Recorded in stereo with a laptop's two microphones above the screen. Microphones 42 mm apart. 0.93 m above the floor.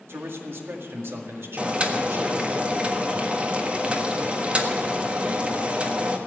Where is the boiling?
25° right (ahead or behind), 1.5 m.